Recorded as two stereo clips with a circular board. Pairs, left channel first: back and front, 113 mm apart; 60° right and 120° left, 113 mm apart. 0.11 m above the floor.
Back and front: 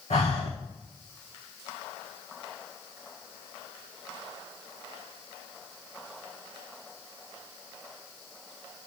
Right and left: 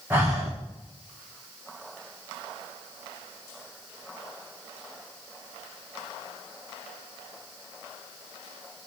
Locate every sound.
0.1 s breathing: 170° right, 2 m